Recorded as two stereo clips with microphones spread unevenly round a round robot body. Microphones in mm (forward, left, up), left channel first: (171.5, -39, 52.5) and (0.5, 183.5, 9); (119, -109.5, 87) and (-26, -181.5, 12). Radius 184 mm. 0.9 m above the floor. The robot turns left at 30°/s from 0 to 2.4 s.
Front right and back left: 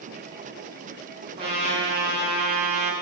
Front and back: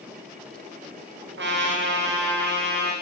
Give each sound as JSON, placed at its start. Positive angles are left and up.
{"t": 1.4, "sound": "a trumpet", "azimuth_deg": -155, "distance_m": 1.8}